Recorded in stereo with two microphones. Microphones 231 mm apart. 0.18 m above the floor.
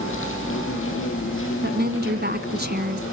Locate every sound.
0.0 s an insect: 60° left (ahead or behind), 4.5 m
1.6 s a woman speaking: 45° right (ahead or behind), 1.4 m